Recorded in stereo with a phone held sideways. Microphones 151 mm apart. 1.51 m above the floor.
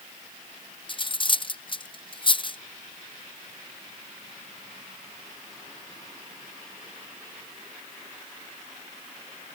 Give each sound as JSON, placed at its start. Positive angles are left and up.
{"t": 0.9, "sound": "cutlery clinking", "side_deg": 35}